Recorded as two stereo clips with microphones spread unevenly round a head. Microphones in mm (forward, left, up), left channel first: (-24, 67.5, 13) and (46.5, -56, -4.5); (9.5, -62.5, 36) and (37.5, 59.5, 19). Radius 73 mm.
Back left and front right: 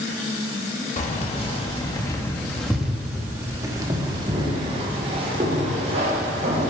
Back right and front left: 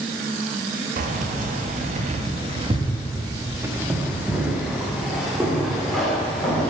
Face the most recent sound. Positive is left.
turn(degrees=-20)